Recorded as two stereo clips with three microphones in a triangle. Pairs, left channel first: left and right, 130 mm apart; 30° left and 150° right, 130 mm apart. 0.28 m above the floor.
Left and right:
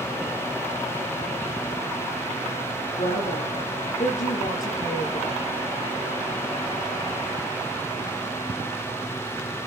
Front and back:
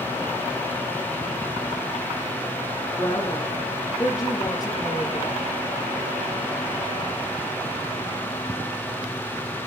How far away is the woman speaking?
About 9.5 m.